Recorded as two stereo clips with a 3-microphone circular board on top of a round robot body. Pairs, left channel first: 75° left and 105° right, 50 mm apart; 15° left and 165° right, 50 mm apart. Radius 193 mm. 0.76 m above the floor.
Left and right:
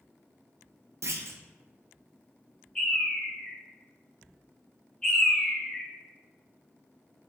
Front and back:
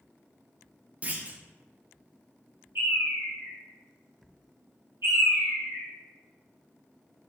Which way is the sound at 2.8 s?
155° left.